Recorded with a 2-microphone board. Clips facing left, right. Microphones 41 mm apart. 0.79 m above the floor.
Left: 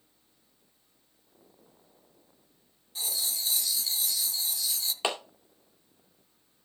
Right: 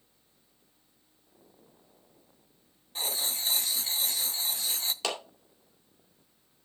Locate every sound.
3.0 s writing: 40° right (ahead or behind), 0.6 m
5.0 s a clap: 25° left (ahead or behind), 2 m